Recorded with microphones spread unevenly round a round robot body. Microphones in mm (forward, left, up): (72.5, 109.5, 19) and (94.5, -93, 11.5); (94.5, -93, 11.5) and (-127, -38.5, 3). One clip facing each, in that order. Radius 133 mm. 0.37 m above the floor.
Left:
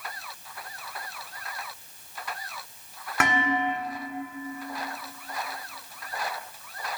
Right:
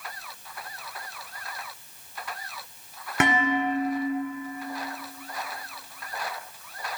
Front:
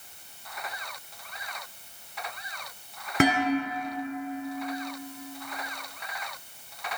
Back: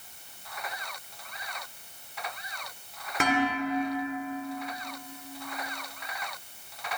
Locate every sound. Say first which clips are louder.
3.2 s dishes clattering: right 3 dB, front 4 dB; 15° right, 2.0 m